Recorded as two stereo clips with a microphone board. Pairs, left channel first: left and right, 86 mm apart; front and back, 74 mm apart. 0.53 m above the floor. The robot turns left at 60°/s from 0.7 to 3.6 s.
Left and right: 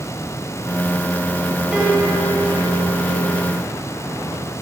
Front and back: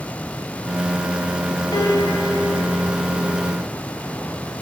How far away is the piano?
About 3 m.